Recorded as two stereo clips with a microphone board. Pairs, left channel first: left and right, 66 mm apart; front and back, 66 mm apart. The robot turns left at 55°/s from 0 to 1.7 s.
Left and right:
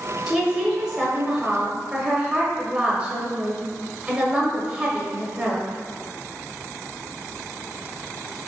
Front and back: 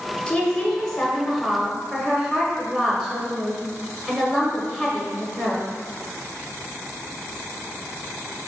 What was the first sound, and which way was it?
A woman speaking, 30° right.